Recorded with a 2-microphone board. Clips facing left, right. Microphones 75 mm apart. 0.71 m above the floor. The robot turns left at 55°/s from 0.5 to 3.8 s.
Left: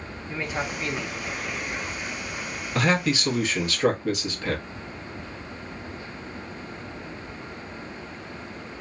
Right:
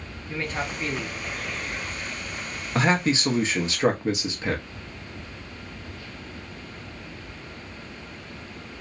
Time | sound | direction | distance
0.3 | a man speaking | 10° left (ahead or behind) | 0.8 m
2.8 | a man speaking | 70° right | 0.7 m